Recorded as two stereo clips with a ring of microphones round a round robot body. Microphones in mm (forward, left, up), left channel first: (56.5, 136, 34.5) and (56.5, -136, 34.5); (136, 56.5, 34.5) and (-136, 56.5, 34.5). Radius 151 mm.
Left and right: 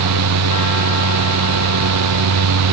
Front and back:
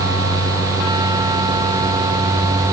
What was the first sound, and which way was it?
Only background noise.